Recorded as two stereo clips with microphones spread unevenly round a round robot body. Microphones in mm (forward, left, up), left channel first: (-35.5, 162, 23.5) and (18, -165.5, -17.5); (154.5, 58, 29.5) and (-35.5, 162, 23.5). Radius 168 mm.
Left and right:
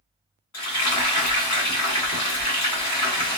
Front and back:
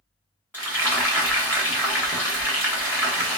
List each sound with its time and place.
0.5 s frying: 70° left, 1.6 m